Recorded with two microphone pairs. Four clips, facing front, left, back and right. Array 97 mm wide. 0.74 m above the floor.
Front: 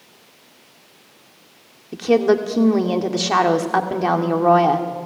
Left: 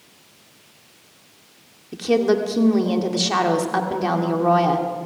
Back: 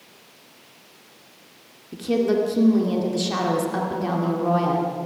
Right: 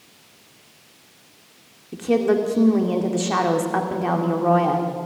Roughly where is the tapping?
No tapping in this recording.